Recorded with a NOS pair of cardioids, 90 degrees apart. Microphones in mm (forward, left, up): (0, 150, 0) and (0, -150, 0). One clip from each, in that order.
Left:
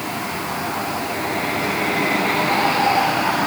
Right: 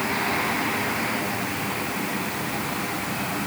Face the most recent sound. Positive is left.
No sound to turn to.